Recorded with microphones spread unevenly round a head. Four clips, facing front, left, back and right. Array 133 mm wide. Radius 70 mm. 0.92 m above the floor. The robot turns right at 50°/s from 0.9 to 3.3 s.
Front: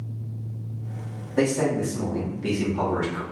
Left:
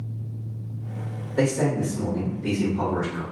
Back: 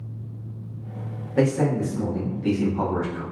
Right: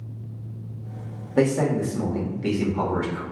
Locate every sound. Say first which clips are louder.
1.4 s a man speaking: right 2 dB, back 1 dB; 100° right, 1.8 m; by 3.2 s 10° right, 1.8 m